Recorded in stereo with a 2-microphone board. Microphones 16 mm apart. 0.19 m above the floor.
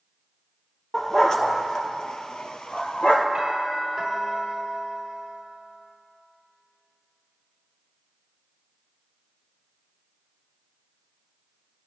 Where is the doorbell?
40° right (ahead or behind), 6.5 m.